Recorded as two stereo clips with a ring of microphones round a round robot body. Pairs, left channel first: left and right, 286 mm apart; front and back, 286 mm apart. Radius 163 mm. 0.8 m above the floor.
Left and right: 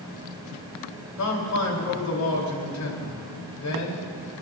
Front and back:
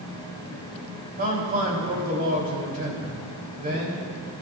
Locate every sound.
1.2 s a man speaking: 115° left, 3.5 m